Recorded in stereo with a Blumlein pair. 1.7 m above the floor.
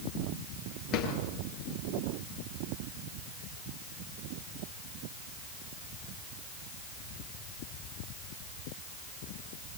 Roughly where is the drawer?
Ahead left.